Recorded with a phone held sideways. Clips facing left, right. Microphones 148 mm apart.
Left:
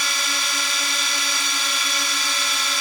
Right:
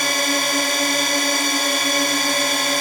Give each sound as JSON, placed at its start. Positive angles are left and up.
{"t": 0.0, "sound": "a drone", "side_deg": -55}